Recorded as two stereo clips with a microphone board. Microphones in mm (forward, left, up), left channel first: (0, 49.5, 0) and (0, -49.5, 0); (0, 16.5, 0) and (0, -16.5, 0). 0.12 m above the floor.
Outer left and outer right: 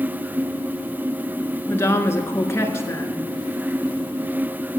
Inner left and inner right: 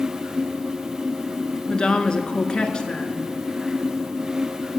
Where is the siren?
No siren in this recording.